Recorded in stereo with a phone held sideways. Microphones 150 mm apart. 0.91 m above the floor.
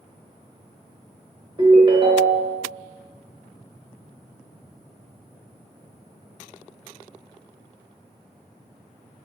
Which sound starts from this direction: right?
A ringtone, at 1.6 s.